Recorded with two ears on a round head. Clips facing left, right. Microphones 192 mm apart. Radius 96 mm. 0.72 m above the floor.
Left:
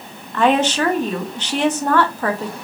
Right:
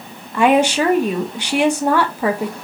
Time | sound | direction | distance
0.3 | a woman speaking | 10° right (ahead or behind) | 0.6 m